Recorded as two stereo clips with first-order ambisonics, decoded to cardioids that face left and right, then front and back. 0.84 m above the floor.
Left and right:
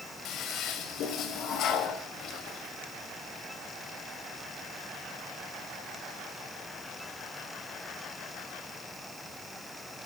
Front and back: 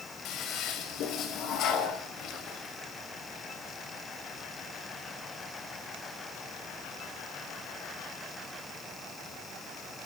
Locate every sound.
0.2 s a toilet flushing: 45° left, 2 m